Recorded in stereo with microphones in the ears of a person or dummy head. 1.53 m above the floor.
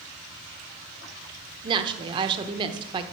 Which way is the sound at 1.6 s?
30° right (ahead or behind).